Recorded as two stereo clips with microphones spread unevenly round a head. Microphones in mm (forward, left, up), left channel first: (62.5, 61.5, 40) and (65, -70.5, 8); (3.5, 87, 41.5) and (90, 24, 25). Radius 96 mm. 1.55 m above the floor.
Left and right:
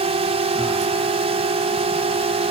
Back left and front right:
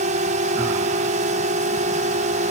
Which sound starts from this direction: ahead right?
A drone, at 0.0 s.